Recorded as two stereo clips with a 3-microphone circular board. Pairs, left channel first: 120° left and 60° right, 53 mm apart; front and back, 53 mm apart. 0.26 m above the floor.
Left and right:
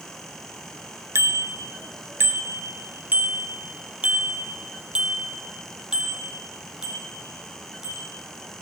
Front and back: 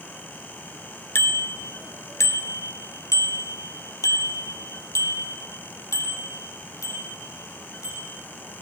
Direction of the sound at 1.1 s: 35° right.